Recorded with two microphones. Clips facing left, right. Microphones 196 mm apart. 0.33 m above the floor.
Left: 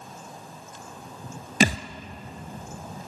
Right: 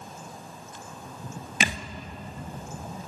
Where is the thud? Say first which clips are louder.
Left 9 dB; 40° left (ahead or behind), 1.0 m.